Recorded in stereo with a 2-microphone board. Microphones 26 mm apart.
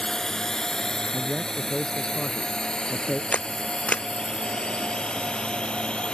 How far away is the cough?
No cough in this recording.